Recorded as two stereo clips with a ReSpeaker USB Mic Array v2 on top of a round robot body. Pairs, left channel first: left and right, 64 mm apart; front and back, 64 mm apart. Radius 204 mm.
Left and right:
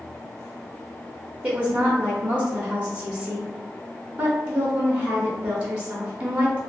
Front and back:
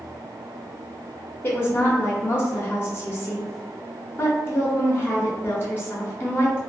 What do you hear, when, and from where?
1.4 s a woman speaking: 25° right, 1.0 m